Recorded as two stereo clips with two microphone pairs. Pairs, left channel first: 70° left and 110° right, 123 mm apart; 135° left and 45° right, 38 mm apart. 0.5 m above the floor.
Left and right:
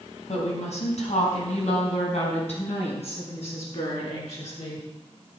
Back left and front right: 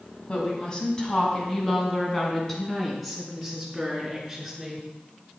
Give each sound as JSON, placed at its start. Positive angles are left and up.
{"t": 0.3, "sound": "a woman speaking", "azimuth_deg": 75, "distance_m": 3.5}